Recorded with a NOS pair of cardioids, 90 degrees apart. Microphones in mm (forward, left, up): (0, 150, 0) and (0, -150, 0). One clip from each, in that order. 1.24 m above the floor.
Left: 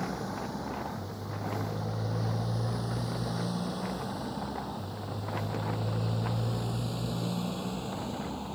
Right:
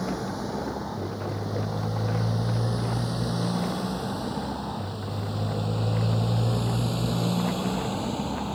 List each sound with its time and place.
0.0 s a motorcycle: 30° right; by 8.6 s 50° right